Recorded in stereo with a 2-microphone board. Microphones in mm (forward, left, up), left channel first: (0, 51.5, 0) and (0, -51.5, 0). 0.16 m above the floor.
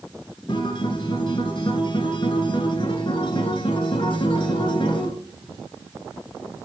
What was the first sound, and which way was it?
A guitar, 55° left (ahead or behind).